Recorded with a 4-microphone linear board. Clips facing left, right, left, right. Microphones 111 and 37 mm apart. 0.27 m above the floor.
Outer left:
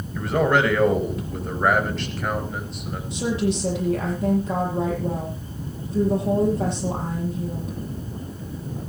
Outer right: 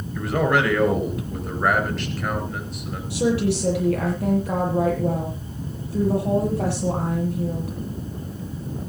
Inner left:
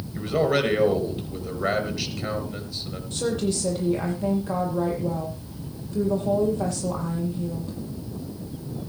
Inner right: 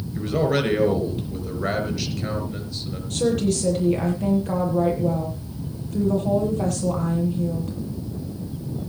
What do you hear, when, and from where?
0.1 s a man speaking: centre (ahead or behind), 4 m
3.1 s a woman speaking: 75° right (ahead or behind), 8.5 m